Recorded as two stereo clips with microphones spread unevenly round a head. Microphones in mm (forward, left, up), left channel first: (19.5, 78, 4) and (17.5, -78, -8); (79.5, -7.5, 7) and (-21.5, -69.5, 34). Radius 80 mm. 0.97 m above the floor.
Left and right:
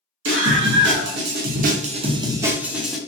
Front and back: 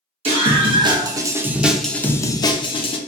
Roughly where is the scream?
Right.